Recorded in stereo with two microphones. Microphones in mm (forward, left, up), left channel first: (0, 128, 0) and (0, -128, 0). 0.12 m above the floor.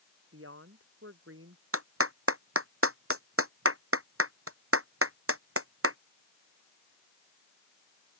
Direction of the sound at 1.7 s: 65° right (ahead or behind).